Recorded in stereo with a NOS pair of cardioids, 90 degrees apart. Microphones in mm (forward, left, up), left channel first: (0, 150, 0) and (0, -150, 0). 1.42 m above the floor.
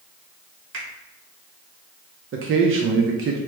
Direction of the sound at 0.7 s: 40° right.